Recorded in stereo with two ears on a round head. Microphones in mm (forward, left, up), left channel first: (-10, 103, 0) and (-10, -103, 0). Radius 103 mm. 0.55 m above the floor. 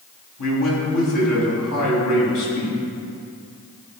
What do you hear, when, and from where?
0.4 s a man speaking: 75° left (ahead or behind), 3 m